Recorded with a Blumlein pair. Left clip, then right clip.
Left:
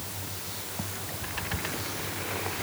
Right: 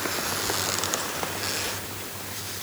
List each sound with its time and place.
Only background noise.